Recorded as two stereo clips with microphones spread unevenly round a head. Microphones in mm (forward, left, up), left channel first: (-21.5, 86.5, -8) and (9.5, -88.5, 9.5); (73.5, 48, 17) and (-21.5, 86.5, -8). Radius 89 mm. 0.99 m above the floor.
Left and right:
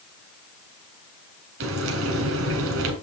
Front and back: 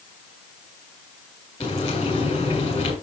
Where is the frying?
85° right, 3 m.